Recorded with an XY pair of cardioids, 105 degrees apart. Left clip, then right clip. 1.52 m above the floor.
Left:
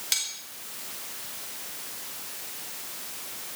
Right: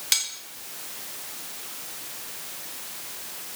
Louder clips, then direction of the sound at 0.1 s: Right 4 dB; 25° right.